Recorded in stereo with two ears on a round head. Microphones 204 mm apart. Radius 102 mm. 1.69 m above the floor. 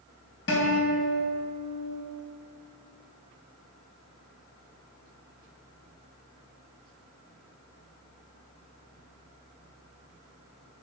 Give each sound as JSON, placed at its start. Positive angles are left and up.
{"t": 0.5, "sound": "a guitar", "side_deg": 60, "distance_m": 2.5}